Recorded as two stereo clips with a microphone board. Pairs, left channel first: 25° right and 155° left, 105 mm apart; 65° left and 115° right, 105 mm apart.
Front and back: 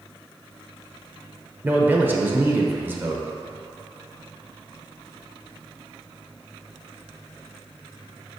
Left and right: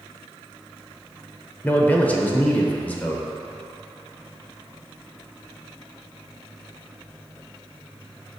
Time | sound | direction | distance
1.6 | a man speaking | 120° left | 0.8 m